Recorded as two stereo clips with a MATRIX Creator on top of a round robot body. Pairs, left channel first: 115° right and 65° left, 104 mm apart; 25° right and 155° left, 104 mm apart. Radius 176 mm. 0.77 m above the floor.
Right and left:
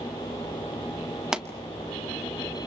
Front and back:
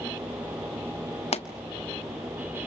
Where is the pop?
15° right, 1.8 m.